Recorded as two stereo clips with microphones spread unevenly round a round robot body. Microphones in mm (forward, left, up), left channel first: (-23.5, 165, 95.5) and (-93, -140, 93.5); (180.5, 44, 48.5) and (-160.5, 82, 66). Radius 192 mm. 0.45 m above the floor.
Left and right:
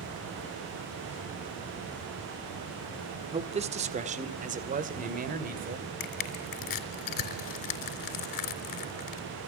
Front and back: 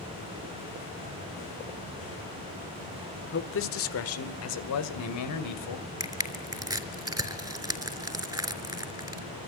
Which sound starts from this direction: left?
Crushing, at 6.0 s.